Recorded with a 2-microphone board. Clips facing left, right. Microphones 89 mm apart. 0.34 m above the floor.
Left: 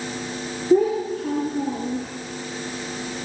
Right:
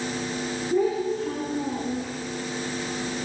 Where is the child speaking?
50° left (ahead or behind), 5.5 m.